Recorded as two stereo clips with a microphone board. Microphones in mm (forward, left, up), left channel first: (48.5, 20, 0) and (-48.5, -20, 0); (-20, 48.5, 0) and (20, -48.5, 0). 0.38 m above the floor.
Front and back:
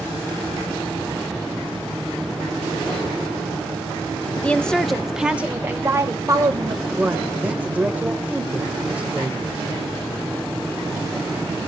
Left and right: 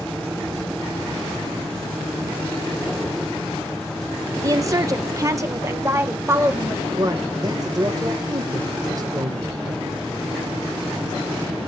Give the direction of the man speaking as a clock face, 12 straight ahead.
3 o'clock.